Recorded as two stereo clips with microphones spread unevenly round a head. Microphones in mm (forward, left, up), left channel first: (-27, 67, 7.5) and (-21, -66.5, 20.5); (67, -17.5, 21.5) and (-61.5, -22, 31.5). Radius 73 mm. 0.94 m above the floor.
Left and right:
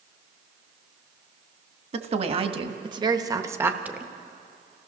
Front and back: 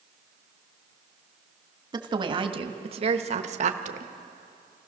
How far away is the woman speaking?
About 1.6 m.